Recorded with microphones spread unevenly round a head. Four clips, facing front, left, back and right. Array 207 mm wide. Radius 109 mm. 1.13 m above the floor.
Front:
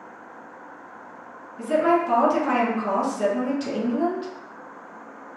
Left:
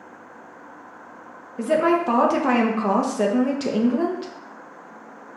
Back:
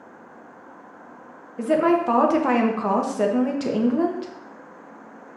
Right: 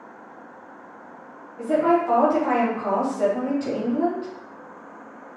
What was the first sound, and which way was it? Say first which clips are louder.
A woman speaking: even, back 1 dB; 120° left.